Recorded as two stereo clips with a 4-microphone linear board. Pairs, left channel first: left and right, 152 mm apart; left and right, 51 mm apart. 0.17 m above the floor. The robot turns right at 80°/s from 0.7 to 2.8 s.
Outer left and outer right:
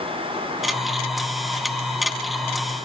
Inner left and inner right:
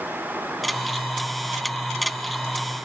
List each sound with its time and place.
Only background noise.